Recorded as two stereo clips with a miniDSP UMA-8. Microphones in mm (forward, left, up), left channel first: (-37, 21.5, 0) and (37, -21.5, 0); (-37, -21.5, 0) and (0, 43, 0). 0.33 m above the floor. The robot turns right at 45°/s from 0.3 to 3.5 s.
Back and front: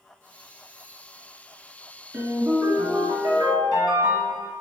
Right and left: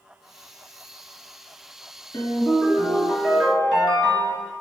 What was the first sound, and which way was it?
A ringtone, 90° right.